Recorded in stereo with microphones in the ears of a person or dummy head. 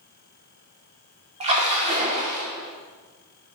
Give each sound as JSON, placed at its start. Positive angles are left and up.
{"t": 1.4, "sound": "a splash", "side_deg": -30, "distance_m": 0.9}